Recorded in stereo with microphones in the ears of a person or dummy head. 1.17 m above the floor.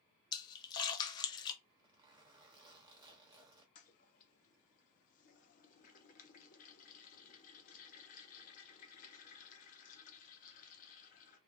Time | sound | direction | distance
0.3 | a splash | 20° left (ahead or behind) | 0.5 m
1.6 | a zipper | 25° right (ahead or behind) | 0.9 m
3.8 | a toilet flushing | 40° left (ahead or behind) | 0.5 m